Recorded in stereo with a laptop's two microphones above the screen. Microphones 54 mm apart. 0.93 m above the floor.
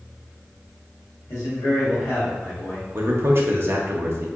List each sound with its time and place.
1.3 s a man speaking: 80° left, 1.2 m; by 2.9 s 55° left (ahead or behind), 1.4 m
3.0 s a man speaking: 50° right (ahead or behind), 0.5 m